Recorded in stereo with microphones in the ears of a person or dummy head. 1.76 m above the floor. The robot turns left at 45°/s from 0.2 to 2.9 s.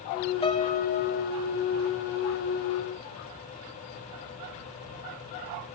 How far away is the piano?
About 0.9 m.